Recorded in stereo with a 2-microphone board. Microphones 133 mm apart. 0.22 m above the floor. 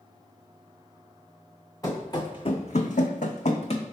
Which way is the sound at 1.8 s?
25° left (ahead or behind).